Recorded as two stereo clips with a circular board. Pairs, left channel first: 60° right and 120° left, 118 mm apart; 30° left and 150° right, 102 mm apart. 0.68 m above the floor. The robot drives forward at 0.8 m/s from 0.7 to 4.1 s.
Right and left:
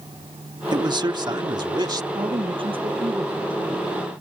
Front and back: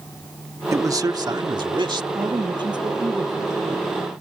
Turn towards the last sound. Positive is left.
turn(degrees=165)